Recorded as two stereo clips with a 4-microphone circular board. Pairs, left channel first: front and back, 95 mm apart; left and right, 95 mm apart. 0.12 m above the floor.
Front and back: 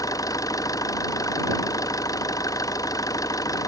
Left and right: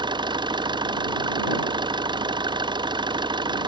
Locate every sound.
0.0 s an engine running: 55° right